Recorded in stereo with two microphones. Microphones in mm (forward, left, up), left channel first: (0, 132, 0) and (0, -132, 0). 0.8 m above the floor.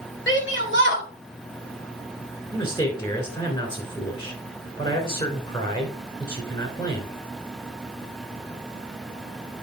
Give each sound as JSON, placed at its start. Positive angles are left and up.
{"t": 0.3, "sound": "a shout", "side_deg": 45, "distance_m": 2.0}
{"t": 2.5, "sound": "a man speaking", "side_deg": 20, "distance_m": 3.0}